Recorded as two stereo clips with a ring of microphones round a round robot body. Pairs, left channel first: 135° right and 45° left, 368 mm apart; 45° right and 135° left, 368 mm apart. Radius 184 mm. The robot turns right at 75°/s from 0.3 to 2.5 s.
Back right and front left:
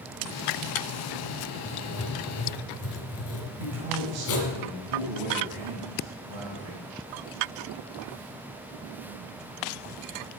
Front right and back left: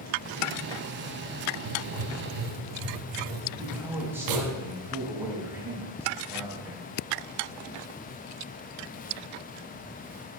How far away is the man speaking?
About 3.5 m.